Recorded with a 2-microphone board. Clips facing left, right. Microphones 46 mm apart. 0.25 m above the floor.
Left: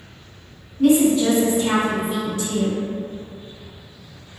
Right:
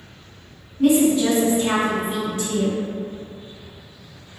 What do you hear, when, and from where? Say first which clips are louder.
0.8 s a woman speaking: left 1 dB; 20° right (ahead or behind), 1.1 m; by 2.8 s 45° right (ahead or behind), 1.5 m